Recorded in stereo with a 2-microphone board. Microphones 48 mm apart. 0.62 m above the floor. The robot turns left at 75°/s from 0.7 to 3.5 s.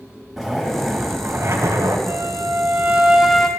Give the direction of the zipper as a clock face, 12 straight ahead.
12 o'clock.